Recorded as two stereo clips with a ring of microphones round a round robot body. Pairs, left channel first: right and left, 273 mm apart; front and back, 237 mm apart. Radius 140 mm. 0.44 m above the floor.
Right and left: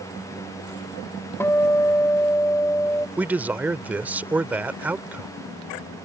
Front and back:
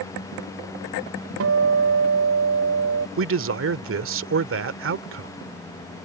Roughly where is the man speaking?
Behind.